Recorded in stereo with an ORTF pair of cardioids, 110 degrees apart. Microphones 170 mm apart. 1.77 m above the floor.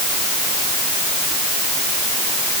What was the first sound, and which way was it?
Only background noise.